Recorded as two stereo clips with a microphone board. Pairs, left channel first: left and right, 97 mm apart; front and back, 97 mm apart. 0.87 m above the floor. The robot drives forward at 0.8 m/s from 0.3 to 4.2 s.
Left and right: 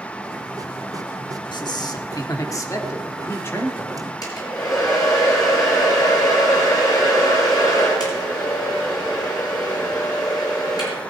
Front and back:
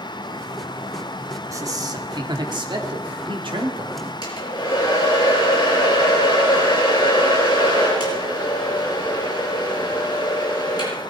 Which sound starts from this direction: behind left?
A man speaking, at 1.5 s.